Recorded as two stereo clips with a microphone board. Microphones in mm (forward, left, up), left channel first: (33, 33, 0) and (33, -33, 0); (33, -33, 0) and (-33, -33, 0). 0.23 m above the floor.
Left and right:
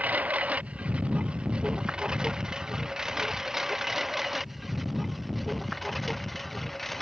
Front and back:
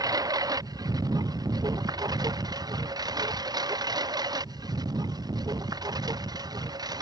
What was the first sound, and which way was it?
A lawn mower, 160° right.